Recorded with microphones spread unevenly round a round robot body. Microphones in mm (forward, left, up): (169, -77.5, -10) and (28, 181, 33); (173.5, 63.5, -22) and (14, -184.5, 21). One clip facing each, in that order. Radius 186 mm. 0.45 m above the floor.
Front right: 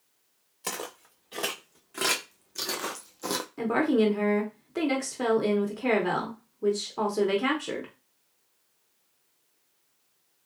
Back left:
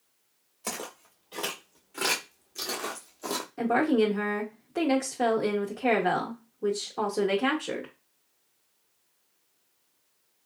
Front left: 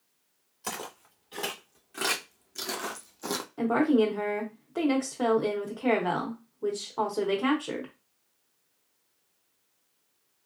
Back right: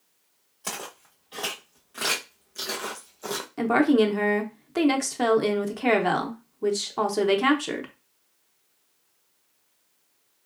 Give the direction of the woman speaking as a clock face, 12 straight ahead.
4 o'clock.